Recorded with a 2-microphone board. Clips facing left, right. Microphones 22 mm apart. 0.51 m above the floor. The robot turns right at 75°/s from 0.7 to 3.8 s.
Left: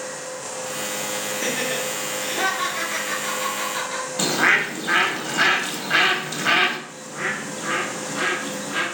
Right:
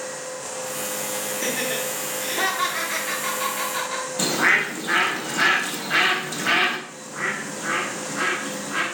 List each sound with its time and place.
1.3 s laughter: 5° left (ahead or behind), 1.0 m; by 4.1 s 5° right (ahead or behind), 1.0 m
4.2 s a bird: 20° left (ahead or behind), 0.7 m
6.9 s a bird: 60° left (ahead or behind), 2 m